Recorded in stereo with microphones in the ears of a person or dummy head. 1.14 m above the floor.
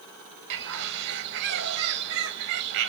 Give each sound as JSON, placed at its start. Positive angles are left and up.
{"t": 0.5, "sound": "a bird", "side_deg": -60, "distance_m": 1.1}